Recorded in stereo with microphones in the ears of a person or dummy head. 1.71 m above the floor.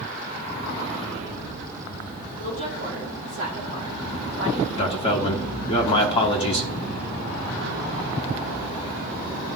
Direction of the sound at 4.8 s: 30° left (ahead or behind).